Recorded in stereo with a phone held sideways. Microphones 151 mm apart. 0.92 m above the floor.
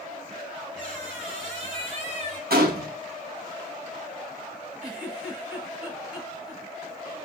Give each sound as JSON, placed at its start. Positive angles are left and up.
{"t": 0.8, "sound": "a squeak", "side_deg": -55, "distance_m": 2.5}
{"t": 2.5, "sound": "a gunshot", "side_deg": -85, "distance_m": 1.0}
{"t": 4.8, "sound": "a giggle", "side_deg": -5, "distance_m": 1.8}